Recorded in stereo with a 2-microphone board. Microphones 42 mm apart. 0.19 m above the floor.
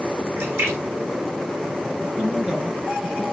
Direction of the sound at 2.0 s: 20° right (ahead or behind).